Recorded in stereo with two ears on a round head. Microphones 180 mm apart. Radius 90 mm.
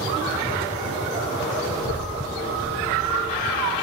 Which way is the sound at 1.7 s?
70° right (ahead or behind).